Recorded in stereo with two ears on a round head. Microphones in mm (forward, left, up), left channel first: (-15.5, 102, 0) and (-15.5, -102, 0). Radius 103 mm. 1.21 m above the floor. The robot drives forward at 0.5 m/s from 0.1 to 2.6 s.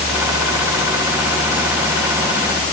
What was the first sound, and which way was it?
Only background noise.